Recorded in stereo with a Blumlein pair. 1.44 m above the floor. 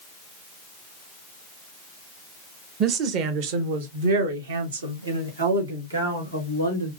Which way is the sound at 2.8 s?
30° right.